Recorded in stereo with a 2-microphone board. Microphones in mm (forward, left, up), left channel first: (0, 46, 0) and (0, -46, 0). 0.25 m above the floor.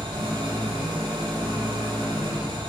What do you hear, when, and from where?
0.0 s an engine running: 45° right (ahead or behind), 6 m